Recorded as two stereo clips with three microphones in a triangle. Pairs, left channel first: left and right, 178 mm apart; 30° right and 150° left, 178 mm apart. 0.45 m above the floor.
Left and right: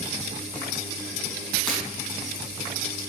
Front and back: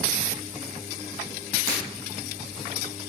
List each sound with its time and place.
1.7 s breaking glass: 5° left, 4.5 m